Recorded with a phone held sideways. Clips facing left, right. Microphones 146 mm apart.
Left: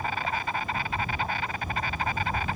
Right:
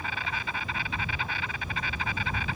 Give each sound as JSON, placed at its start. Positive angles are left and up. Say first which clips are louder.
{"t": 0.0, "sound": "an insect", "louder": "left 5 dB", "side_deg": 50}